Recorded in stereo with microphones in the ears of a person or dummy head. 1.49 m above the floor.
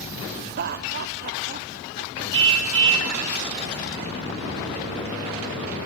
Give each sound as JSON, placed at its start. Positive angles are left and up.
{"t": 0.4, "sound": "laughter", "side_deg": -50, "distance_m": 0.8}
{"t": 2.3, "sound": "a car horn", "side_deg": -70, "distance_m": 3.5}